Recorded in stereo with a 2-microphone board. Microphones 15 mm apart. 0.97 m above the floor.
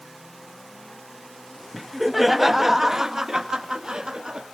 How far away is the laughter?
About 1.5 m.